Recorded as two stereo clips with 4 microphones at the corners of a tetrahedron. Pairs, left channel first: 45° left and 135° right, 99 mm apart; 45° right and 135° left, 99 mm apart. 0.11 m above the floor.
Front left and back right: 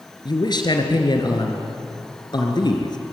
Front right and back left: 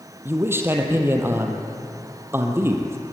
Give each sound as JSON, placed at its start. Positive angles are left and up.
{"t": 0.2, "sound": "a man speaking", "azimuth_deg": 75, "distance_m": 2.5}